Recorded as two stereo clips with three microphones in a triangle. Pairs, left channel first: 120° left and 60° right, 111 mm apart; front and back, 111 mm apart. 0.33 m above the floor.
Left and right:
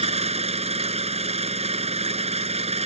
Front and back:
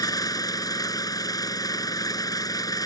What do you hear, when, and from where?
0.0 s an engine running: 55° right